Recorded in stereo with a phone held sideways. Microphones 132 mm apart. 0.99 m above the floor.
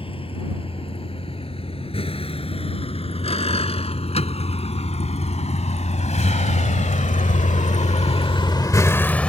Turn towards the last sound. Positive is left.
turn(degrees=10)  # may be behind; listen again after turning